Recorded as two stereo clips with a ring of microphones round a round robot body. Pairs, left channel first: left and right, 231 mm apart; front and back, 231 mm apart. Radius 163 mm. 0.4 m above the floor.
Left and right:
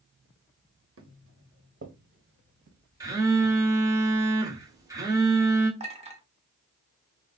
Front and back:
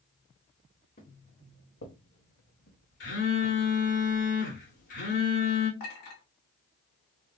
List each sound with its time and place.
1.0 s footsteps: 65° right, 1.3 m; by 3.5 s 35° right, 2.5 m
3.0 s a phone buzzing: 20° right, 1.9 m
5.8 s a clink: 30° right, 1.9 m